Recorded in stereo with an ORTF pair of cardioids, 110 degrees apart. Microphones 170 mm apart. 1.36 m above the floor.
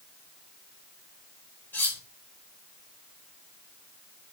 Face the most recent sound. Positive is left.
turn(degrees=10)